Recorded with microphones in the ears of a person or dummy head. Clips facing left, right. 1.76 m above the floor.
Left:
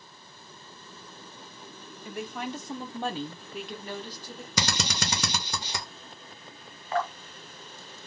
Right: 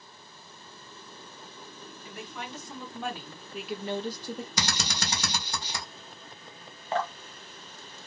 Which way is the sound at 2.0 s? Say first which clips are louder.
Left 7 dB; 45° left (ahead or behind).